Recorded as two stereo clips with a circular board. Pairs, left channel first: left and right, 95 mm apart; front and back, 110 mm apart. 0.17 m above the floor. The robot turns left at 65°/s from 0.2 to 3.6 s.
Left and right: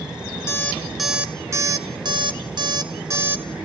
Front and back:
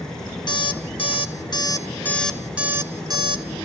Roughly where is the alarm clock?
Ahead left.